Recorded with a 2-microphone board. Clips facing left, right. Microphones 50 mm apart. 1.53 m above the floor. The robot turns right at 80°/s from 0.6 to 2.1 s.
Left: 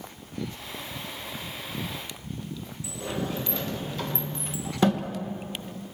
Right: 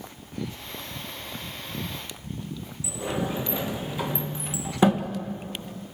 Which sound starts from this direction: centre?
A sliding door, at 2.8 s.